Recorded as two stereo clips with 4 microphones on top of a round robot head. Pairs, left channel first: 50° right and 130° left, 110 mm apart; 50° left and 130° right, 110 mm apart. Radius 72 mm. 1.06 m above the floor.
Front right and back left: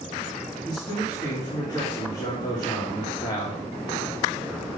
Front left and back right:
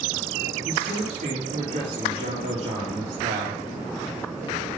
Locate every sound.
0.7 s a man speaking: 105° right, 2.5 m